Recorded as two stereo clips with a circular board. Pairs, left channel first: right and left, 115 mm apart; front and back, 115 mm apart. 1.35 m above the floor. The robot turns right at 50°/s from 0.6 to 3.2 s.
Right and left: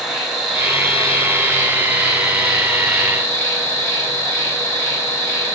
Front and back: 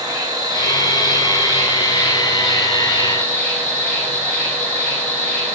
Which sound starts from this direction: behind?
An insect, at 0.0 s.